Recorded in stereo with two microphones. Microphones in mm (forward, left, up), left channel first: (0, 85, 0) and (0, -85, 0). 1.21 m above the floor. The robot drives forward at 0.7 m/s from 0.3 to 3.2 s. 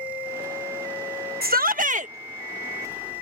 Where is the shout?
65° right (ahead or behind); by 2.1 s 45° right (ahead or behind).